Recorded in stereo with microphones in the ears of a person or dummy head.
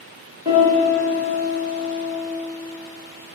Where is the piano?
25° right (ahead or behind), 1.5 m.